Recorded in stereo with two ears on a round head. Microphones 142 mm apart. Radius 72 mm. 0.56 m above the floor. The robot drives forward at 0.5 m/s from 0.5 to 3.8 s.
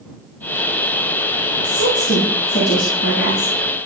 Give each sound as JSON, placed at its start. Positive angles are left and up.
{"t": 1.6, "sound": "a woman speaking", "side_deg": 70, "distance_m": 7.5}